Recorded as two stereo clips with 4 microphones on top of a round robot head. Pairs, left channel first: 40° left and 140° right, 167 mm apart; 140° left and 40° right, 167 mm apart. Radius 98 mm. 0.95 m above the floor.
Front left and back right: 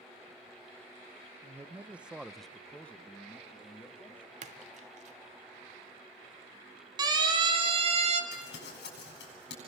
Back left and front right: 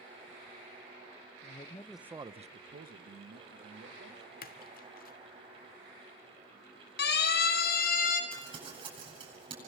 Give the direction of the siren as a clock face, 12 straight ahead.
7 o'clock.